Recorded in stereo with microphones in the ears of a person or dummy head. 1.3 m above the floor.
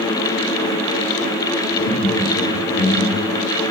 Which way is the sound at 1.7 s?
70° left (ahead or behind).